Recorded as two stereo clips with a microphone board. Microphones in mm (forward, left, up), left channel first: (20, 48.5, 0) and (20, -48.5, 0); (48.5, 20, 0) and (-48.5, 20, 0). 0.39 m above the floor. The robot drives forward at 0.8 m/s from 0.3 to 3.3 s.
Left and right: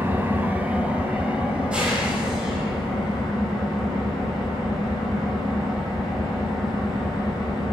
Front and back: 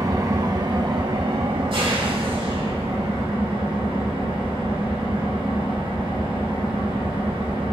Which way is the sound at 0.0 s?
150° right.